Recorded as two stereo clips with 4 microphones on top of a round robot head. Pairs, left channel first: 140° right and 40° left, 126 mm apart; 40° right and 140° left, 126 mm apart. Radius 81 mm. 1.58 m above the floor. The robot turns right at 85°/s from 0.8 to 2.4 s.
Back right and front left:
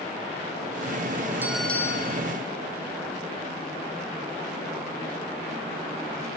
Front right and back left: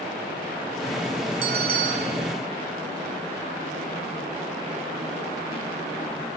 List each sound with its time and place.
1.4 s a bell: 115° left; by 2.2 s 175° right